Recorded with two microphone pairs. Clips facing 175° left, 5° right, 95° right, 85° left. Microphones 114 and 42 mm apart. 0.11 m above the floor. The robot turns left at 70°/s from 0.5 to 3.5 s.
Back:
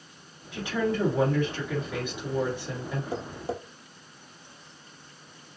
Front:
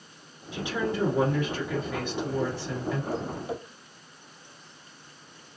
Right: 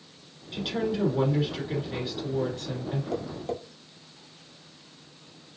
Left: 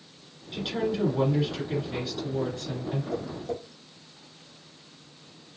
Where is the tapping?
110° right, 0.9 m; by 3.6 s 140° right, 0.9 m.